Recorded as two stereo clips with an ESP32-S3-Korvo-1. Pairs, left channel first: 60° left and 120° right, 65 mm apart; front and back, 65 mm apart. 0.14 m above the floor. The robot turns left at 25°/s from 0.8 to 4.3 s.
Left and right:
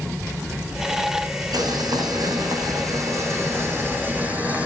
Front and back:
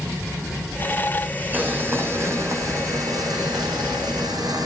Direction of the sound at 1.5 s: 120° right.